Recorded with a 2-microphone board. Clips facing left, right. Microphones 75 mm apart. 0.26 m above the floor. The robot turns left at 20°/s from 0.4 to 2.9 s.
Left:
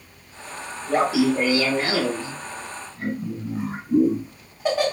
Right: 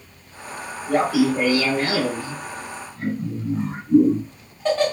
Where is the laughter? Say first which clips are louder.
Right 1 dB; 20° left (ahead or behind), 0.9 m; by 4.9 s 10° left (ahead or behind), 0.9 m.